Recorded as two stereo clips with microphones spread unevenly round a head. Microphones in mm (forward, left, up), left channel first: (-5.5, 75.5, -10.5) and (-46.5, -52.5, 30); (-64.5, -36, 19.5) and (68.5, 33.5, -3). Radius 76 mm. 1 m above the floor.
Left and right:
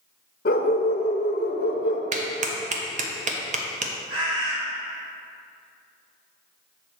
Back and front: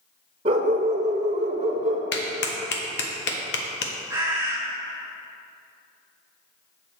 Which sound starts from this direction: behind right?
A clap, at 2.1 s.